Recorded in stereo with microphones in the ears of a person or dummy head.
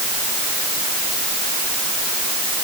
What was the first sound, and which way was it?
Only background noise.